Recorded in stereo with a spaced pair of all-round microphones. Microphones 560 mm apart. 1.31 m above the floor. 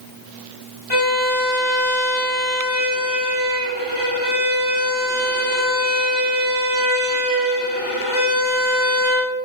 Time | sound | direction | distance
0.9 | a violin | 45° left (ahead or behind) | 9 m